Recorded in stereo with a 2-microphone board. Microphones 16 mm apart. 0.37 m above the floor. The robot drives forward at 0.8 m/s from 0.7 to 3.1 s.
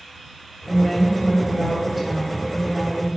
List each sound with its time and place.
0.7 s a woman speaking: 10° right (ahead or behind), 1.9 m; by 3.1 s 5° right (ahead or behind), 3.5 m